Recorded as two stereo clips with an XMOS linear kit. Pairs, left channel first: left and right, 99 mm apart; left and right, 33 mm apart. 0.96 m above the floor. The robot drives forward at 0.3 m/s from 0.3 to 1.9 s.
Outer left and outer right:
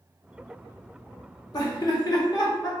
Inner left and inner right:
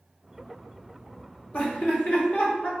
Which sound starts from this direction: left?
Laughter, at 1.5 s.